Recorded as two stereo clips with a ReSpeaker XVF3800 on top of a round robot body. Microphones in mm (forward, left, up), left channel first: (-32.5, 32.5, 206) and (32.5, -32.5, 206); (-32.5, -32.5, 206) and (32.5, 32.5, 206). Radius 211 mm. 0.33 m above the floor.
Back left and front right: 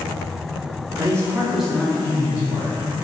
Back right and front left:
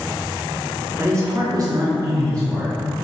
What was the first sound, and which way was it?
A man speaking, 5° right.